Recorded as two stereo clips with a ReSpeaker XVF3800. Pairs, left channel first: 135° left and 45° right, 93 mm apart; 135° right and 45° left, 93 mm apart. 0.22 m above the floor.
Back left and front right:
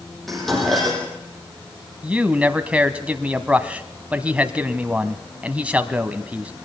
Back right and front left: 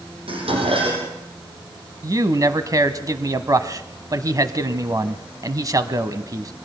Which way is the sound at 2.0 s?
25° left.